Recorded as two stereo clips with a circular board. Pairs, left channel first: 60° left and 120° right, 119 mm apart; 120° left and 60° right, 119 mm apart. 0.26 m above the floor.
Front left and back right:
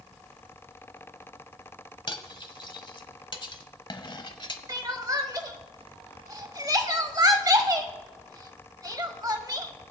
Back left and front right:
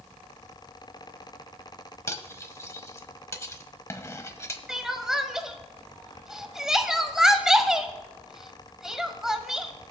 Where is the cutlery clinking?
65° left, 0.8 m.